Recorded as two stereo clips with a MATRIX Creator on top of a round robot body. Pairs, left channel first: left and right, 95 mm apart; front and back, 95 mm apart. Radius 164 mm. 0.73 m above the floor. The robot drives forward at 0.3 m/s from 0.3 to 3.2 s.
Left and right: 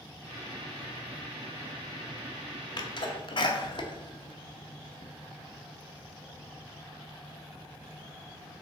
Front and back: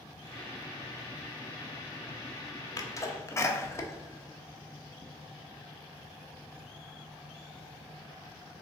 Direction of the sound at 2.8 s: 50° left.